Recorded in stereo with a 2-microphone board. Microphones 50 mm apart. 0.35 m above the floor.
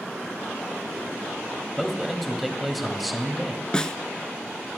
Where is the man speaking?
Centre (ahead or behind), 1.8 m.